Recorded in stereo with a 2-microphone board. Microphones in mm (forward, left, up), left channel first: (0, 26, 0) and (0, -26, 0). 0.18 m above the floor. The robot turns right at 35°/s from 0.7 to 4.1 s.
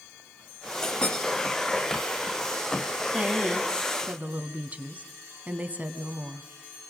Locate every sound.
0.8 s a clink: 10° left (ahead or behind), 8 m; by 1.1 s 25° left (ahead or behind), 8 m
3.1 s a woman speaking: 120° right, 1.6 m; by 6.5 s 85° right, 1.6 m